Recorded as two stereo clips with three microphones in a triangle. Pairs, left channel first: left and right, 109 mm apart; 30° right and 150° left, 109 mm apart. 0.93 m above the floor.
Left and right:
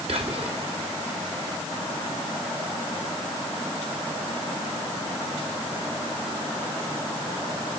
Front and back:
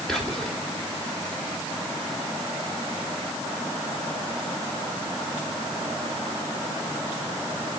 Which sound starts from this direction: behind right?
Whispering, at 0.1 s.